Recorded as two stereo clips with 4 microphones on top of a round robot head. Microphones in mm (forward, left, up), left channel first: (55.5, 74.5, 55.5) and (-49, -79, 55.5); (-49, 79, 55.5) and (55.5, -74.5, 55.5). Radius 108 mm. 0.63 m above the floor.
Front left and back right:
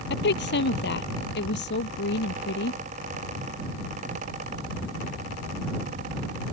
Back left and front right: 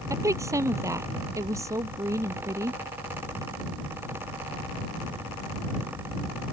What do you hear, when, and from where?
0.1 s a woman speaking: 20° left